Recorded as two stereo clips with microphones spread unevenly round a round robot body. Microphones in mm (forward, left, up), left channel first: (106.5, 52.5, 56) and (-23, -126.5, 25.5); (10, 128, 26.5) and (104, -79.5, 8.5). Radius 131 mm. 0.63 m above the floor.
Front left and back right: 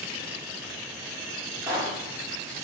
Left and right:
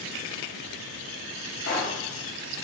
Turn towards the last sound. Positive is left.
turn(degrees=155)